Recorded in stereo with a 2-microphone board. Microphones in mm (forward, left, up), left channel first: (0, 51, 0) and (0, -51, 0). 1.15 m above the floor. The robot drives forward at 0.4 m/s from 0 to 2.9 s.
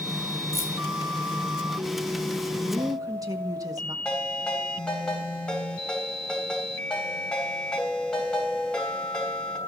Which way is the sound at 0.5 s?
85° left.